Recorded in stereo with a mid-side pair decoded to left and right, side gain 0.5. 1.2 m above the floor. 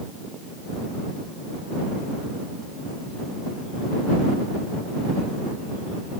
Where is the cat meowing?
I don't hear a cat meowing.